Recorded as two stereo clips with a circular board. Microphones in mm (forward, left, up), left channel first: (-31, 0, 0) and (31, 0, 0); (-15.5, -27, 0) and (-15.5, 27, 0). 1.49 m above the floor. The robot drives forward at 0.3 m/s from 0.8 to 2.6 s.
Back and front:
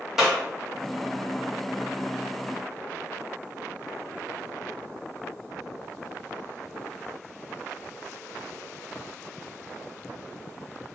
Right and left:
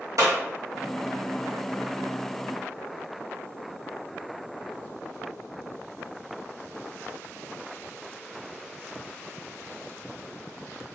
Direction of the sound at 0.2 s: 85° left.